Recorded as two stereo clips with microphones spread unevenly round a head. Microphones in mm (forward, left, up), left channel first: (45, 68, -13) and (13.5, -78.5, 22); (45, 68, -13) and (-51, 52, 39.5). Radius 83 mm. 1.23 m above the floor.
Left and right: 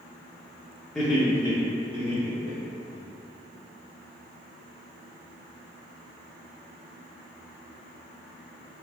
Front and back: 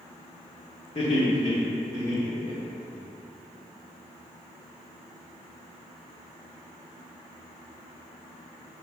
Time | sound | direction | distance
0.9 | laughter | 5° right | 1.4 m